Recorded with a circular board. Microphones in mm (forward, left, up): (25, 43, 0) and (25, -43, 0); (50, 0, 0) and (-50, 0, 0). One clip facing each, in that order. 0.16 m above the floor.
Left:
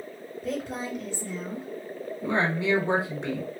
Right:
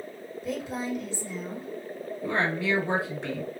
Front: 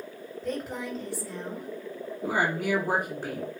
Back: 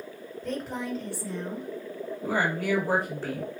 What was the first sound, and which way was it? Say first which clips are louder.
A woman speaking: even, even; 80° left.